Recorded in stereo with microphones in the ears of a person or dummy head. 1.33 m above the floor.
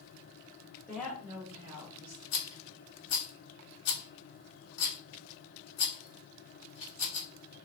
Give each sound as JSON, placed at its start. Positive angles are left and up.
{"t": 0.9, "sound": "a woman speaking", "side_deg": 5, "distance_m": 1.0}
{"t": 2.3, "sound": "a rattle", "side_deg": 65, "distance_m": 0.9}